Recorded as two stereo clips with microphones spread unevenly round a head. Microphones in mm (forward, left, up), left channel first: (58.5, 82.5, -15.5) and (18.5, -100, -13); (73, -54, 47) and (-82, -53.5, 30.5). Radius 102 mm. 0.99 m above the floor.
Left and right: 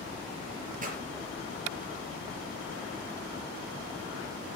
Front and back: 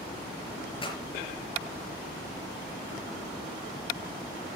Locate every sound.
0.8 s a pop: 55° right, 5 m